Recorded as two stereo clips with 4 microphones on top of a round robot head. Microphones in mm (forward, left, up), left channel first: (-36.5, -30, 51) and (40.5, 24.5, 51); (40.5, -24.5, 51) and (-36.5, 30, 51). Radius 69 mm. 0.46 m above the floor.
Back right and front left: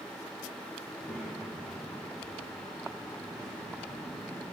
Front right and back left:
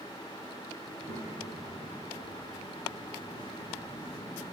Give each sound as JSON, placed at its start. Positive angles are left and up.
{"t": 0.9, "sound": "a child speaking", "azimuth_deg": 150, "distance_m": 3.0}